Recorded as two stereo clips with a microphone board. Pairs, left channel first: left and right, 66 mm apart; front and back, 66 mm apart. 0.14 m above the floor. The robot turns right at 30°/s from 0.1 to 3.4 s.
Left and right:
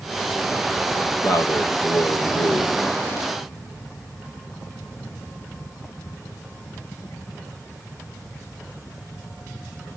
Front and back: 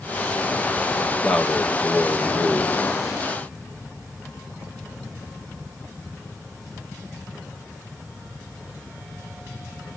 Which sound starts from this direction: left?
A man speaking, at 1.2 s.